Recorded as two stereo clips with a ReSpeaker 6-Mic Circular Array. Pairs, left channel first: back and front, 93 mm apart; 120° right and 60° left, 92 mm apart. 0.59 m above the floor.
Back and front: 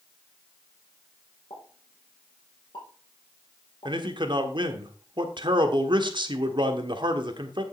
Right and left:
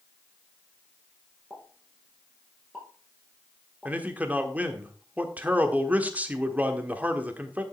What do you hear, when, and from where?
1.5 s a pop: 145° left, 4.5 m
3.9 s a man speaking: 10° right, 1.4 m